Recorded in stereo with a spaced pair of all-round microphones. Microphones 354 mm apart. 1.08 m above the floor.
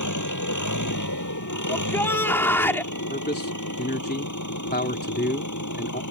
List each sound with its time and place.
0.0 s an engine running: 55° left (ahead or behind)
1.7 s a shout: 5° left (ahead or behind)
3.1 s a man speaking: 25° left (ahead or behind)